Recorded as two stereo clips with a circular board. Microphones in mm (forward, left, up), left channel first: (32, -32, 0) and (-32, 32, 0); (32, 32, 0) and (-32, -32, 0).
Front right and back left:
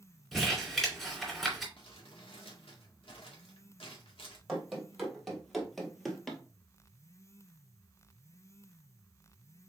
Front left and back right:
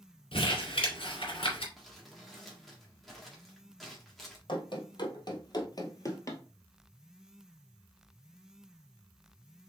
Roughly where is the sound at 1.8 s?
Ahead right.